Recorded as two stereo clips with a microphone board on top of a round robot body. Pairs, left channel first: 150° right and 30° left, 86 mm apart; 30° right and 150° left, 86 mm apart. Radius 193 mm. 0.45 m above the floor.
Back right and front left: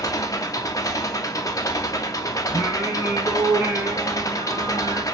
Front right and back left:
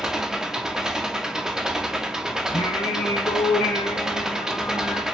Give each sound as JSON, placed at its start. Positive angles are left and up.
{"t": 0.0, "sound": "an engine running", "azimuth_deg": -130, "distance_m": 0.9}
{"t": 2.5, "sound": "singing", "azimuth_deg": -35, "distance_m": 0.8}